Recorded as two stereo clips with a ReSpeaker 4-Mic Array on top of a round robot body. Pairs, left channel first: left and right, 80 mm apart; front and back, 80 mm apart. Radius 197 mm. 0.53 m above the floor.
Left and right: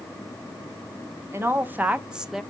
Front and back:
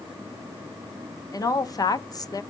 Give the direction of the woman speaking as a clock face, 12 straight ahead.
1 o'clock.